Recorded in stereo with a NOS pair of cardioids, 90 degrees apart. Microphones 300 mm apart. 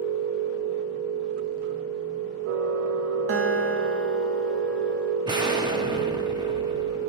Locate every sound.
0.0 s a machine running: 50° right, 0.9 m
3.3 s a guitar: 50° right, 1.1 m
5.2 s an explosion: 15° right, 1.3 m